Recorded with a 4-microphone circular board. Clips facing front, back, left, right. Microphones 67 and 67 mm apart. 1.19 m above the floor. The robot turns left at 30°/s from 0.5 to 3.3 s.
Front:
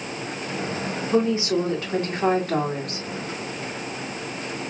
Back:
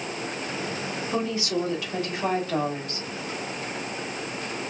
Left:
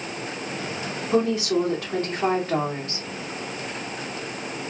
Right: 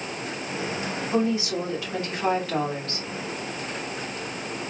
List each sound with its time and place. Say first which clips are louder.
1.1 s a woman speaking: front 7 dB, left 4 dB; 75° left, 2.5 m; by 3.1 s 15° left, 2.5 m